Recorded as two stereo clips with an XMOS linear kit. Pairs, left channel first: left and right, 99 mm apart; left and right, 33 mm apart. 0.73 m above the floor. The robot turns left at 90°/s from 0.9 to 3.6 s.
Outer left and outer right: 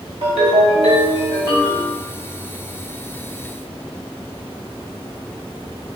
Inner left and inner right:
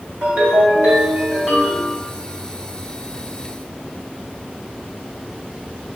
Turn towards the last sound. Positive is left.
turn(degrees=20)